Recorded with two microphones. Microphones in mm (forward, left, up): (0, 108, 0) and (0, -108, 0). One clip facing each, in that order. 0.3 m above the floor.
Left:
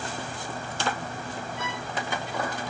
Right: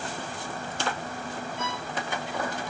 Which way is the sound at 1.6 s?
15° left (ahead or behind).